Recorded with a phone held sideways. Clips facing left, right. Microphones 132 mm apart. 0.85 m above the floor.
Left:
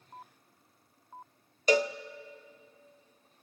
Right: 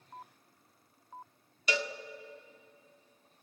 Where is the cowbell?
45° left (ahead or behind), 0.7 m.